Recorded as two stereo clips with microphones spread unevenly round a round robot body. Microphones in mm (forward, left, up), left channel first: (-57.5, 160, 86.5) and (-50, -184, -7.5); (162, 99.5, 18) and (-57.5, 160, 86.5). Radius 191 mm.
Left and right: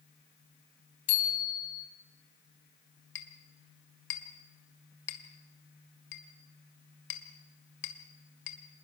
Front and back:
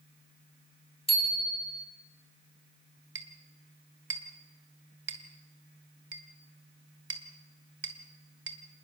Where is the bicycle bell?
50° left, 4 m.